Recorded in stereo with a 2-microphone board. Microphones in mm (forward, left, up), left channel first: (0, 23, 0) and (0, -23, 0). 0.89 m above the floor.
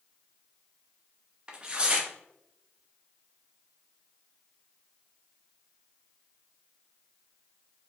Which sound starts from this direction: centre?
Tearing paper, at 1.5 s.